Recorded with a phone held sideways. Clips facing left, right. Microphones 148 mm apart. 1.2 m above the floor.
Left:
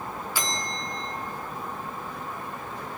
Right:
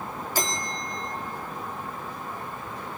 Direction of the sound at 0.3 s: 45° right (ahead or behind).